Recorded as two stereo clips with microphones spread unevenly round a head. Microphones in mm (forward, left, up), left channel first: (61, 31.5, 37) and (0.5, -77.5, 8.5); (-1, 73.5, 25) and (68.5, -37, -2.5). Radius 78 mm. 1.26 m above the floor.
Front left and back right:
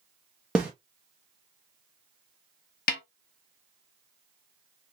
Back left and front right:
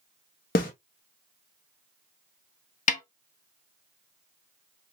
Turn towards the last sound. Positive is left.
turn(degrees=95)